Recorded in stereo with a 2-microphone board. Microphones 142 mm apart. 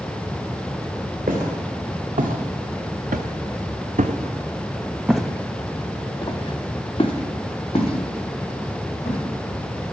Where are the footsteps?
75° right (ahead or behind), 2.5 m; by 9.2 s 50° left (ahead or behind), 3.5 m.